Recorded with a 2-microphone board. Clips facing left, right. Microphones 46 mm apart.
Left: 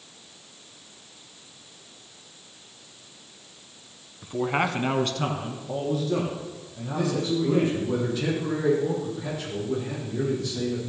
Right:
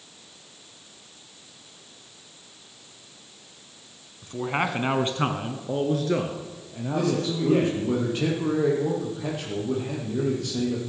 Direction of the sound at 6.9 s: 75° right (ahead or behind).